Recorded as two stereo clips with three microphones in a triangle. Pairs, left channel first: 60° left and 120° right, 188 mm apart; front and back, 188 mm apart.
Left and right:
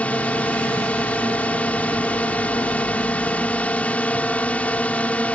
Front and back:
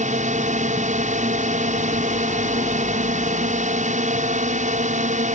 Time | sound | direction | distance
0.0 | a drone | 140° left | ?